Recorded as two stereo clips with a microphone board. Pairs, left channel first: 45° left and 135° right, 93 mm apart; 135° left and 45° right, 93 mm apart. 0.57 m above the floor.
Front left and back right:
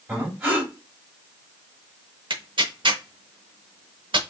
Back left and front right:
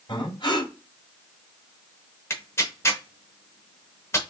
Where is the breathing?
160° left, 2 m.